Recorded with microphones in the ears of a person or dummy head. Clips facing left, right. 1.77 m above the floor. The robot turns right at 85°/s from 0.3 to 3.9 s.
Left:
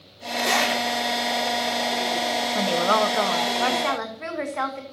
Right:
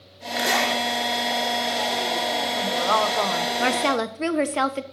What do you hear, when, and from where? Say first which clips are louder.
0.4 s a zipper: even; 15° right, 2 m; by 0.8 s 20° left, 2 m
2.5 s a woman speaking: left 3 dB; 120° left, 1.0 m; by 4.8 s 125° right, 1.0 m